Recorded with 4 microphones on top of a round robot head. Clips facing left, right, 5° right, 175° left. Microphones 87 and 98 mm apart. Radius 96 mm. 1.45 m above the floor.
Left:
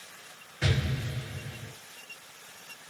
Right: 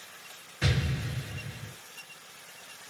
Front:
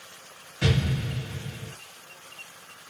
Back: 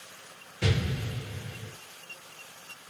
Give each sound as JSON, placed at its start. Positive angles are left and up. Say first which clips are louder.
{"t": 0.6, "sound": "an explosion", "louder": "even, front 4 dB", "azimuth_deg": -10, "distance_m": 1.8}